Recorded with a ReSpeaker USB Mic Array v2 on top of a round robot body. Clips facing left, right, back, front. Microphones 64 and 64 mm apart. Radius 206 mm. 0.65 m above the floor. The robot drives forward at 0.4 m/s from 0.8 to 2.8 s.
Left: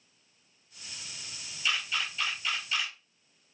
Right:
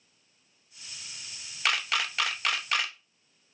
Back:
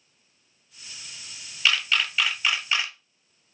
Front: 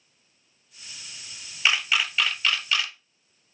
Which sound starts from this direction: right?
A camera shutter, at 1.6 s.